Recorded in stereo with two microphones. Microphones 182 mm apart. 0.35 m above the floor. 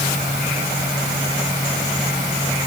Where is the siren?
I don't hear a siren.